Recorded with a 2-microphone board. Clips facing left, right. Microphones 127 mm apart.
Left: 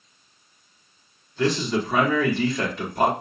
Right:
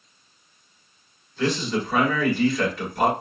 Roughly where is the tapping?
No tapping in this recording.